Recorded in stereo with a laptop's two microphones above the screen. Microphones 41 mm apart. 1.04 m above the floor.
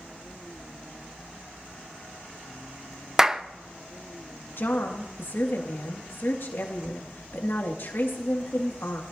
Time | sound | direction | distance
3.2 | a clap | 10° right (ahead or behind) | 0.6 m
4.6 | a woman speaking | 65° left (ahead or behind) | 2 m